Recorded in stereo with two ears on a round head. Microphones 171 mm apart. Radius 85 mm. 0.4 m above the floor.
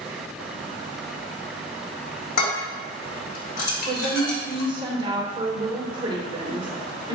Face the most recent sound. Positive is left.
turn(degrees=-25)  # may be behind; listen again after turning